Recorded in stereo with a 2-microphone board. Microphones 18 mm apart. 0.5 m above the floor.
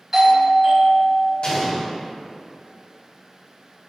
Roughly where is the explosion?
Left.